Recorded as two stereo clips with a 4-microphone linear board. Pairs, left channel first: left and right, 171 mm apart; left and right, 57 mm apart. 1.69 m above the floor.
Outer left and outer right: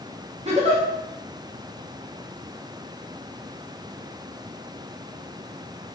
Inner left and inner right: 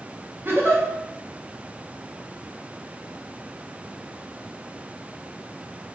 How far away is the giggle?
About 0.7 m.